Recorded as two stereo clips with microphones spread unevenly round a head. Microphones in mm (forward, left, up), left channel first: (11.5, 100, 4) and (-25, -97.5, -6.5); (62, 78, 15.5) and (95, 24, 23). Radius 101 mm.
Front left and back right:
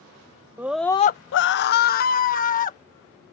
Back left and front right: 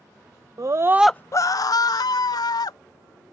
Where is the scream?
20° right; by 3.3 s 135° left.